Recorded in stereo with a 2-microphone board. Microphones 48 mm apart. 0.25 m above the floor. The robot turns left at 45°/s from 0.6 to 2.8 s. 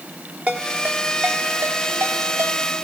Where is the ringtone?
30° right (ahead or behind), 3 m; by 2.6 s 60° right (ahead or behind), 3 m.